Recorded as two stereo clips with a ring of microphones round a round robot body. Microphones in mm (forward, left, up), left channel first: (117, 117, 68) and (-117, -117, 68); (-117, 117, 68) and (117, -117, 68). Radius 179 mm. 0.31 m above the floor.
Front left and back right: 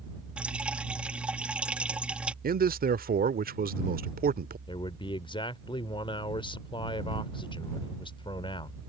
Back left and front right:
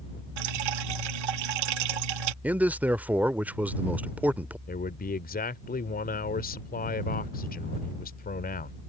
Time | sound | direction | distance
0.4 | dripping | 50° right | ?
2.4 | a man speaking | 125° right | ?
4.7 | a man speaking | 105° left | ?